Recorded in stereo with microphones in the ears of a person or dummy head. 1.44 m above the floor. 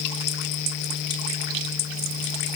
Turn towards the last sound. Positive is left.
No sound to turn to.